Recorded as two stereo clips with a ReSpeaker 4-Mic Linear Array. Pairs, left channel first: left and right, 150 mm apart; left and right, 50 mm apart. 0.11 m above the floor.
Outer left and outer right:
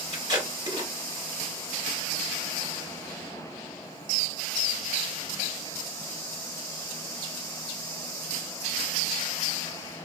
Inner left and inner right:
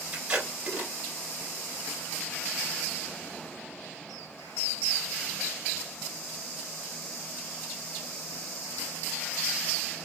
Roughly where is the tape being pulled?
Right.